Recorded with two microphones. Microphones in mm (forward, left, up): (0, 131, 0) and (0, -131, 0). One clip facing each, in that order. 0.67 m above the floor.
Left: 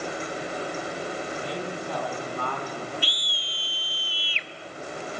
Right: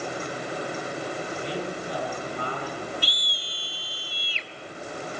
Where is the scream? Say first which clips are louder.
Even; 45° right (ahead or behind), 1.4 m.